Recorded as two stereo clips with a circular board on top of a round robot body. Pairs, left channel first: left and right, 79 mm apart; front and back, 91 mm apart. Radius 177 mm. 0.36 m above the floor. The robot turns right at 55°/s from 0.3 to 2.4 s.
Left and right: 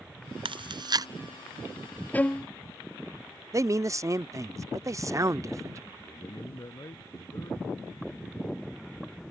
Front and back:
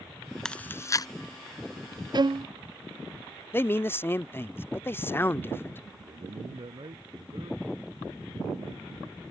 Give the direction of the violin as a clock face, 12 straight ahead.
7 o'clock.